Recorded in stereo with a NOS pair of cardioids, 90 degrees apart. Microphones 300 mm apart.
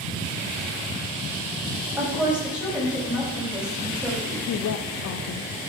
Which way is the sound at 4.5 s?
65° left.